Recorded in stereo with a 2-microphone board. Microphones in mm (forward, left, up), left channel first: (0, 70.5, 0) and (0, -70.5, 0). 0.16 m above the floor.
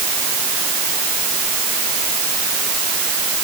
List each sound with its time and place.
Only background noise.